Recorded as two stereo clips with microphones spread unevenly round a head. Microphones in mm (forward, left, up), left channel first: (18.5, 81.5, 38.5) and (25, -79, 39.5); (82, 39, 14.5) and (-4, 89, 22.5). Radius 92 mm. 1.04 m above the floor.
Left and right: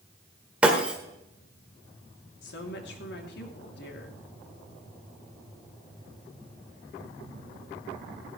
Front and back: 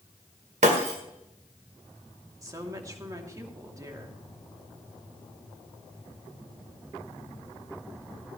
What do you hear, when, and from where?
0.6 s breaking glass: 170° right, 1.6 m
2.4 s a woman speaking: 95° left, 2.5 m